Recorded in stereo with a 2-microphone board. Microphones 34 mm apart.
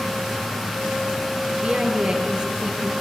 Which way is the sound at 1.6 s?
30° right (ahead or behind).